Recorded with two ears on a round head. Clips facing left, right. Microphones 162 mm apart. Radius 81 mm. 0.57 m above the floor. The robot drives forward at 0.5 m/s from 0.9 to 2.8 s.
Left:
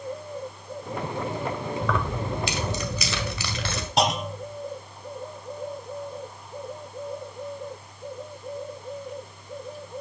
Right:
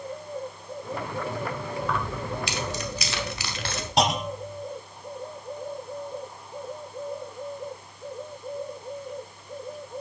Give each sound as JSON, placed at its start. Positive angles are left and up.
{"t": 1.8, "sound": "keys jangling", "side_deg": 65, "distance_m": 1.9}
{"t": 4.0, "sound": "a clunk", "side_deg": 0, "distance_m": 0.9}